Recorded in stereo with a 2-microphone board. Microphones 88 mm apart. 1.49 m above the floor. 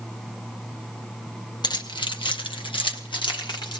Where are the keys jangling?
55° left (ahead or behind), 1.0 m.